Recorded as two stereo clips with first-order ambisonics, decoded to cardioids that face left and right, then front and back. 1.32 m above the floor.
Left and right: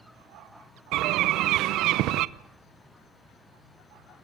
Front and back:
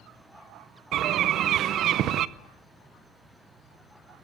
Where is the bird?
130° right, 0.7 m.